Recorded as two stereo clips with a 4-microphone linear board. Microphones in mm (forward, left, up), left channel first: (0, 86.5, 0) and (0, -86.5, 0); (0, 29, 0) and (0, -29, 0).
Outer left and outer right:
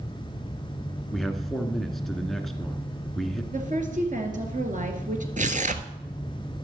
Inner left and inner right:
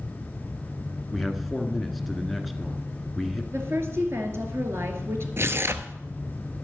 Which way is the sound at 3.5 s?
50° right (ahead or behind).